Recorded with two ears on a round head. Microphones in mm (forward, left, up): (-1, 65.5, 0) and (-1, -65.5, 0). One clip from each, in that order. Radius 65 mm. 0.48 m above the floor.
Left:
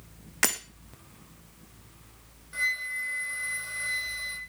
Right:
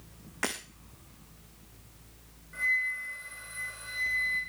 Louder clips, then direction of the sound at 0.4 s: Left 6 dB; 60° left (ahead or behind).